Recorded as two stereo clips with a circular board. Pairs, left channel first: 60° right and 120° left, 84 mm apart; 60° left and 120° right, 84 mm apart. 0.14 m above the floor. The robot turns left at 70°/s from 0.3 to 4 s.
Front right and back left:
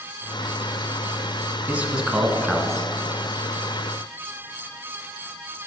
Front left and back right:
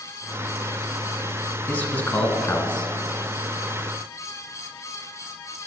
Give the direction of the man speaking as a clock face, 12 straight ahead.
9 o'clock.